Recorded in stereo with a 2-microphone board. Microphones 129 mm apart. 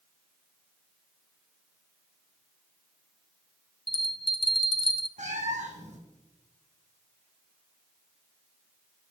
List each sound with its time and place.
3.9 s a bell: 40° left (ahead or behind), 0.8 m
5.2 s a cat meowing: 70° right (ahead or behind), 1.7 m